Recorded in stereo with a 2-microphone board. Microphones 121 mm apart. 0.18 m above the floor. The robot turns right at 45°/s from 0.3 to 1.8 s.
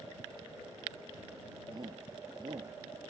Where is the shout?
35° right (ahead or behind); by 2.8 s 40° right (ahead or behind).